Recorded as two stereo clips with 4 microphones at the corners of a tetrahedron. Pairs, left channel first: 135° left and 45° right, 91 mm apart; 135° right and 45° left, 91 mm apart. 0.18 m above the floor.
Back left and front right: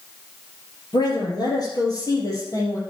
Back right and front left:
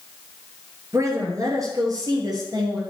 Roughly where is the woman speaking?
Left.